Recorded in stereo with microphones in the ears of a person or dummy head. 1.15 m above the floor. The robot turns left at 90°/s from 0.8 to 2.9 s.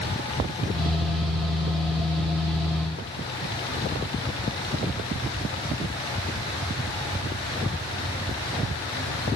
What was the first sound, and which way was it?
Only background noise.